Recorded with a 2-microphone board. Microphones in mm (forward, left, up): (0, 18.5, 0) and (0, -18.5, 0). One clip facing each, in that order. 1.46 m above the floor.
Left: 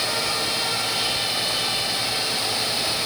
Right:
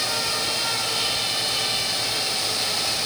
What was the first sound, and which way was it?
Only background noise.